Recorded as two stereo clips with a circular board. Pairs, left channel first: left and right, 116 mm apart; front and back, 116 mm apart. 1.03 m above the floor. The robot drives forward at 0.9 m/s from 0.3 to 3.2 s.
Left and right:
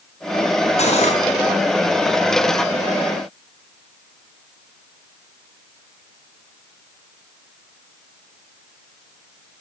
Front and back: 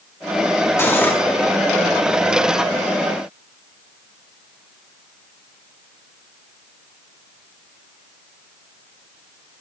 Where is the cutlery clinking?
65° left, 5 m; by 1.2 s 70° left, 4.5 m.